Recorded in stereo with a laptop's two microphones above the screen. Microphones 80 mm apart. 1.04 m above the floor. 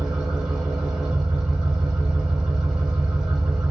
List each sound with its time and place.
0.0 s an engine running: 10° right (ahead or behind), 1.4 m